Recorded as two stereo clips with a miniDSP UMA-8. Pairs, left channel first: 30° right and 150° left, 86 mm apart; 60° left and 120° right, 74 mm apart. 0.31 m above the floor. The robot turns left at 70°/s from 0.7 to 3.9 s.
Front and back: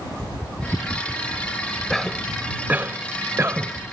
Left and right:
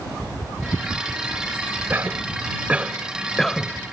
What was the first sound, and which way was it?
A cough, 110° right.